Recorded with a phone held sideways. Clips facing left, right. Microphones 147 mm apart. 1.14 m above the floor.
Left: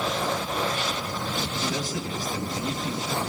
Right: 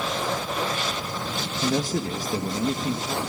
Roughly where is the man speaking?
Right.